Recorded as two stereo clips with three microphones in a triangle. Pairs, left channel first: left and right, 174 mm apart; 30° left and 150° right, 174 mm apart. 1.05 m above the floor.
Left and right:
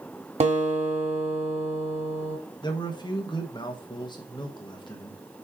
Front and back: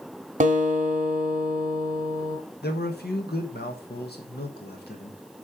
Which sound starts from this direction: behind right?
A guitar, at 0.4 s.